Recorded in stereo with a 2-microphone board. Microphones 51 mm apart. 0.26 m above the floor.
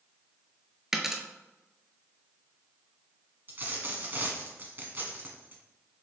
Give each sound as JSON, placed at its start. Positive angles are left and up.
{"t": 0.9, "sound": "a dropped coin", "side_deg": -10, "distance_m": 0.6}
{"t": 3.5, "sound": "a dropped coin", "side_deg": -40, "distance_m": 1.0}